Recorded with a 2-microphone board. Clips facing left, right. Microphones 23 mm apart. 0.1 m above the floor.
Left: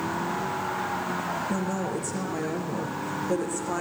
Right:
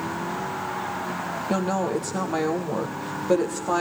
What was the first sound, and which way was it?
A woman speaking, 65° right (ahead or behind).